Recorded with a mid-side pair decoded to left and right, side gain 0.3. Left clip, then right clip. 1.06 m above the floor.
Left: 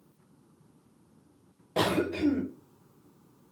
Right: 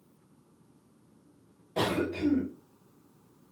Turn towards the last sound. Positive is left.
turn(degrees=50)